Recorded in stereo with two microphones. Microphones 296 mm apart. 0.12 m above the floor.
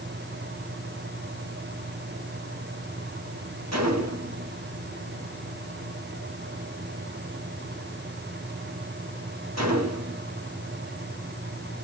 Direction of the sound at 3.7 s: 65° right (ahead or behind).